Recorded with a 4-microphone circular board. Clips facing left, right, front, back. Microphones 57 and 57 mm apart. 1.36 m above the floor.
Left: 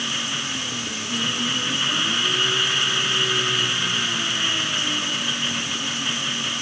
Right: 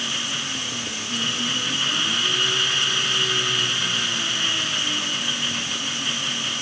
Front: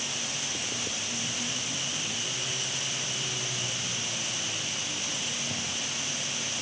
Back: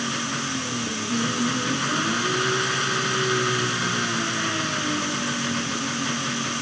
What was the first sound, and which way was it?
An engine running, 170° left.